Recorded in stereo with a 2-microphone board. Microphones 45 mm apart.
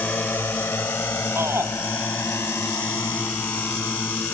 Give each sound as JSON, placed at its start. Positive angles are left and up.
{"t": 0.0, "sound": "a drone", "side_deg": 55}
{"t": 1.4, "sound": "a shout", "side_deg": -75}